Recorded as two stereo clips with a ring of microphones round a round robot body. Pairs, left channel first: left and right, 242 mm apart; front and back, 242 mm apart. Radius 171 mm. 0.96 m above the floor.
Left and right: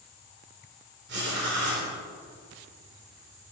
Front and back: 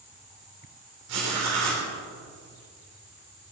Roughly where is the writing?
Behind right.